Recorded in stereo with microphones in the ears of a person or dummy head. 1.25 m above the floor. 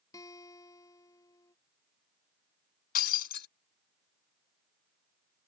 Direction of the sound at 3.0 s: 55° left (ahead or behind).